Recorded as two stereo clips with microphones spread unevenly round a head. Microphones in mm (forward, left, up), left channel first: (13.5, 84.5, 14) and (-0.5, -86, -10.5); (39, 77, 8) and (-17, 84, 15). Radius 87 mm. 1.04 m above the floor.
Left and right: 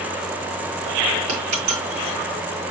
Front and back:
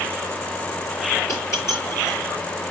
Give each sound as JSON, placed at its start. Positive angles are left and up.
{"t": 1.3, "sound": "a dropped coin", "azimuth_deg": -100, "distance_m": 6.0}